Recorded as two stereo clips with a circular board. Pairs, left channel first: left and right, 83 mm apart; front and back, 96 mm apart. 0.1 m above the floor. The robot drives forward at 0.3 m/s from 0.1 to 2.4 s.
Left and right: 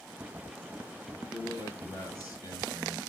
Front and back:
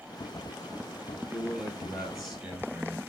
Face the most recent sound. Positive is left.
turn(degrees=100)